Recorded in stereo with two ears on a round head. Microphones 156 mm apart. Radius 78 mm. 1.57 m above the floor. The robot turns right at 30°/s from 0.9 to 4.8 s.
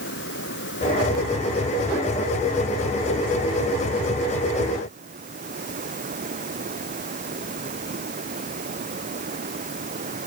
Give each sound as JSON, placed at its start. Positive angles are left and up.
{"t": 0.0, "sound": "running water", "azimuth_deg": 110}